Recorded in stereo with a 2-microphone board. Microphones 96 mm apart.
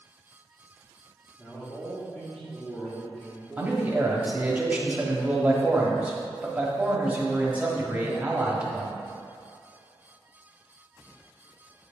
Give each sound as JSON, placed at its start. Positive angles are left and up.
{"t": 1.4, "sound": "a man speaking", "side_deg": 30, "distance_m": 1.9}
{"t": 3.6, "sound": "a man speaking", "side_deg": -15, "distance_m": 1.2}